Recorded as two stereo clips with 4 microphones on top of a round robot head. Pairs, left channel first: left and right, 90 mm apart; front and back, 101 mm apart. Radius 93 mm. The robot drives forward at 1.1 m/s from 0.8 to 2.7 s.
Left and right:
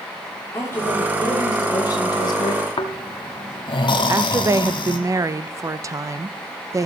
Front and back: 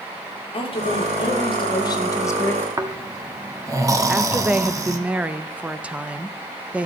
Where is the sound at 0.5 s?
25° left, 2.5 m; by 2.7 s 75° left, 1.2 m.